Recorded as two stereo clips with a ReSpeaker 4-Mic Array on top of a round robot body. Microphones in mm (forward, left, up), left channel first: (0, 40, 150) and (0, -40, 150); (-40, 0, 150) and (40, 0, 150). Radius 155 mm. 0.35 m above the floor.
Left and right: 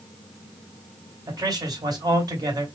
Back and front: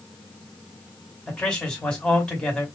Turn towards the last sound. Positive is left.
turn(degrees=-105)